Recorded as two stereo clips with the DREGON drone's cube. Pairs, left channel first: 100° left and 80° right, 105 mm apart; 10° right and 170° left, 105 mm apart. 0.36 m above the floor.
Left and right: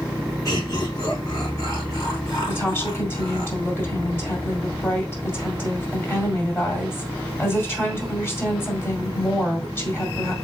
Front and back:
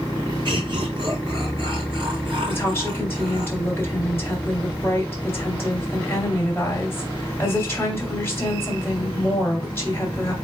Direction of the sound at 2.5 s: 40° left.